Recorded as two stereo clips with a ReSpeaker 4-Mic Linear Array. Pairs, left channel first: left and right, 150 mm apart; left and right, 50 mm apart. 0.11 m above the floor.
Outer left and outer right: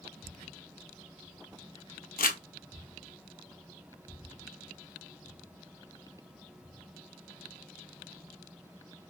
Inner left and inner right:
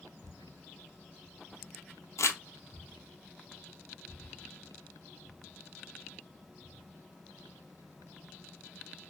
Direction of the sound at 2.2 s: 75° left (ahead or behind).